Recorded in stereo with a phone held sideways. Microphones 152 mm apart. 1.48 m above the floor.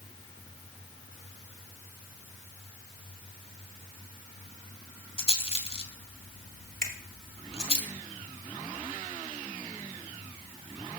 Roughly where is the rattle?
Left.